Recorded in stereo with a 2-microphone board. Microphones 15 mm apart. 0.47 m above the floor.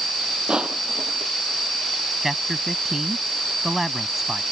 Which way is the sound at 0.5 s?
80° right.